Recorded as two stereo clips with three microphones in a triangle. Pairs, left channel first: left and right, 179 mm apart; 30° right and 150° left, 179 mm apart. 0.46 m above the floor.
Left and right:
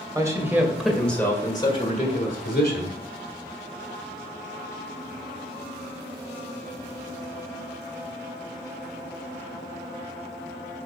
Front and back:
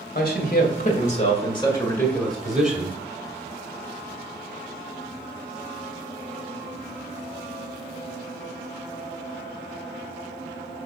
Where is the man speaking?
20° right, 2.5 m; by 3.0 s 75° left, 2.5 m.